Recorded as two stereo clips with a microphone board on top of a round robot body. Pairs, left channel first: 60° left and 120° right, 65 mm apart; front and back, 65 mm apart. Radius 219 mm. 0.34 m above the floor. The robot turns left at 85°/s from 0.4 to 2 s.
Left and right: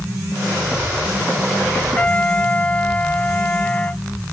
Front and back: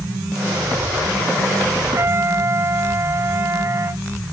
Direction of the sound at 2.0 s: 135° left.